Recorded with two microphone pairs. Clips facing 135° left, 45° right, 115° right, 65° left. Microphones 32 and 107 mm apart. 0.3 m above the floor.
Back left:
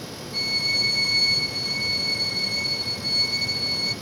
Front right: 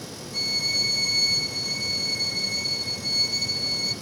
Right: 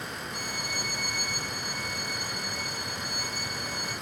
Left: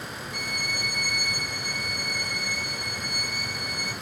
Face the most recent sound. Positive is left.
turn(degrees=-175)